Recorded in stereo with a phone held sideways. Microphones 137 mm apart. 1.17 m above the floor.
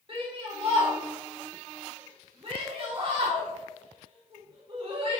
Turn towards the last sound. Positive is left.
turn(degrees=-45)  # may be behind; listen again after turning